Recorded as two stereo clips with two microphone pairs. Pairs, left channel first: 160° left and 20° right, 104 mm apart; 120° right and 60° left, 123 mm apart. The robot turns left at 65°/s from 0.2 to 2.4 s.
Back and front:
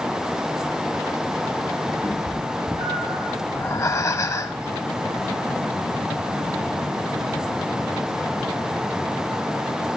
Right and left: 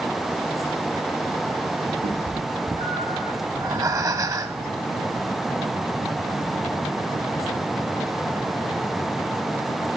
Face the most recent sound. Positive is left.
turn(degrees=110)